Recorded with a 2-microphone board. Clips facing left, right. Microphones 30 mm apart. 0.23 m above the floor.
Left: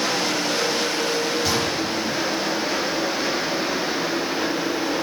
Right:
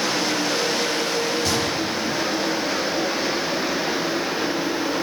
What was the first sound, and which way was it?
A gunshot, 5° left (ahead or behind).